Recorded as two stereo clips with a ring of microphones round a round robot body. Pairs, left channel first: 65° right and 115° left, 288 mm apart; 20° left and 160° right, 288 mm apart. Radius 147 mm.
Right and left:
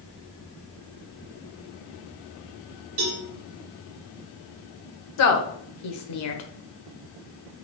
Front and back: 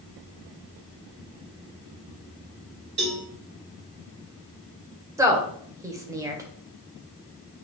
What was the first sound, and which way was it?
A cowbell, 150° left.